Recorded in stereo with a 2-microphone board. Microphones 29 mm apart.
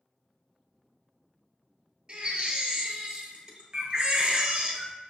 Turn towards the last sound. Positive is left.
turn(degrees=-30)  # may be behind; listen again after turning